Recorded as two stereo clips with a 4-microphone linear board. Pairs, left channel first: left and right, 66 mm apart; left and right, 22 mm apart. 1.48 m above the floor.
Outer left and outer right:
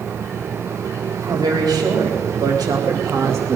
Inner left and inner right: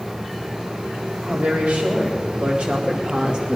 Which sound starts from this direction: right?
A woman speaking, at 1.3 s.